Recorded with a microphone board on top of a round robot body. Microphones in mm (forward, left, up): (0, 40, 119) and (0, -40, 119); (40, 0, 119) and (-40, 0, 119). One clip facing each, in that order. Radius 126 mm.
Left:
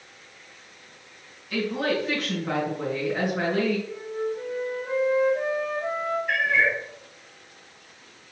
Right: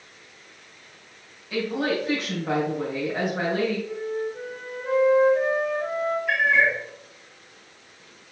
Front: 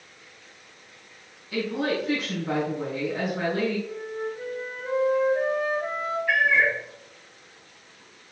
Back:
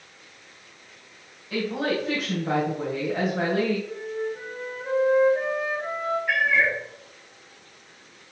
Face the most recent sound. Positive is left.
turn(degrees=-100)